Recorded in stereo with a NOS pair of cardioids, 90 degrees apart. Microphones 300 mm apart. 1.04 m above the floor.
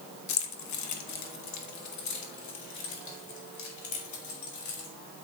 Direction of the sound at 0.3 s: 60° left.